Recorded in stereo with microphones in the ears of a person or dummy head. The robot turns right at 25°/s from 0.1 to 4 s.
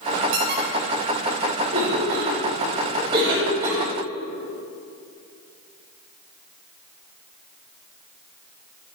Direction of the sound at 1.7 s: 65° right (ahead or behind).